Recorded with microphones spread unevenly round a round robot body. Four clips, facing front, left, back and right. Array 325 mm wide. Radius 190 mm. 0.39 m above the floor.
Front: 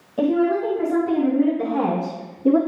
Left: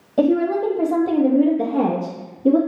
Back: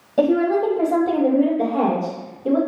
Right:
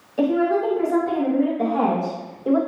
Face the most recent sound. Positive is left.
turn(degrees=60)